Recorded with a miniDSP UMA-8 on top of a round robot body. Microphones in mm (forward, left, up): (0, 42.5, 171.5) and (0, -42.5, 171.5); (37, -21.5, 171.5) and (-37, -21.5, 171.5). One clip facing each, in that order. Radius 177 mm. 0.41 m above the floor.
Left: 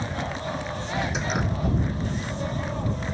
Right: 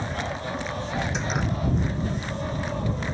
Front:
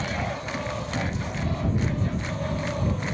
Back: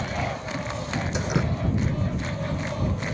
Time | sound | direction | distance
1.1 | dripping | 175° left | ?